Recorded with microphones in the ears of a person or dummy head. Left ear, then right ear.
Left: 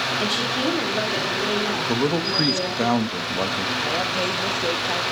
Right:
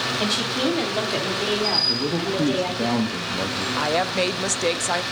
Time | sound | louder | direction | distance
0.2 | a woman speaking | even | 5° left (ahead or behind) | 2.5 m
1.9 | a man speaking | left 2 dB | 70° left (ahead or behind) | 1.4 m
3.8 | a woman speaking | right 5 dB | 45° right (ahead or behind) | 0.7 m